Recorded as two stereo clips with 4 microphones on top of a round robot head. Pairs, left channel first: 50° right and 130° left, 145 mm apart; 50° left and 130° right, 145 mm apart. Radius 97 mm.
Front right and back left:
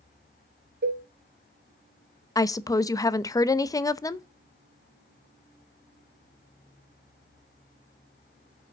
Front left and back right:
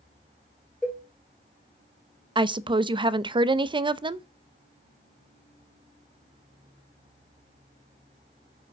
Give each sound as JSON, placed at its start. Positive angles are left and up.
{"t": 0.8, "sound": "a cowbell", "azimuth_deg": 135, "distance_m": 3.5}
{"t": 2.4, "sound": "a woman speaking", "azimuth_deg": -100, "distance_m": 0.7}